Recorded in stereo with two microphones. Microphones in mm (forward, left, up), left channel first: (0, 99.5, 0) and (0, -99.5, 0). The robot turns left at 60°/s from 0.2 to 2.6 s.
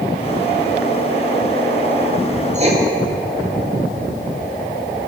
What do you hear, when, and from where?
2.5 s writing: 35° right (ahead or behind), 1.7 m; by 2.8 s 30° right (ahead or behind), 1.7 m